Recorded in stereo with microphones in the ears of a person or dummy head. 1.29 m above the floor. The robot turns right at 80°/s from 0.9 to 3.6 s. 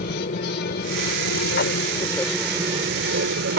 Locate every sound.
0.0 s an aircraft: 50° left (ahead or behind); by 3.6 s 65° right (ahead or behind)